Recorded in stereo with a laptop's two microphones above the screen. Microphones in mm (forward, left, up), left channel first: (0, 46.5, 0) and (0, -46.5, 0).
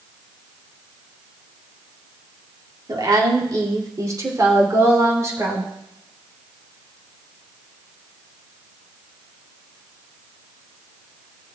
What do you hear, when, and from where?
2.9 s a woman speaking: 50° right (ahead or behind), 2 m; by 5.7 s 35° right (ahead or behind), 3.5 m